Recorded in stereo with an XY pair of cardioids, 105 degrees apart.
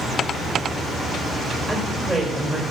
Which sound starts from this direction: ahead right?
A woman speaking, at 1.7 s.